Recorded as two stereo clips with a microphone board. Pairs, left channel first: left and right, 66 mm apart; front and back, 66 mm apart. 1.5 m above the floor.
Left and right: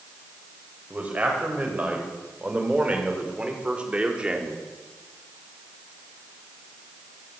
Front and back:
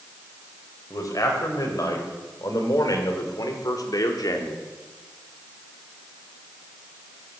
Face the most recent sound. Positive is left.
turn(degrees=-15)